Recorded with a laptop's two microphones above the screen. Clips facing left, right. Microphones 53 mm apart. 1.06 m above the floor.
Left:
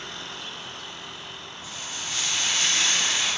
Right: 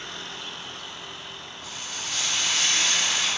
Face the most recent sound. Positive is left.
turn(degrees=-65)  # may be behind; listen again after turning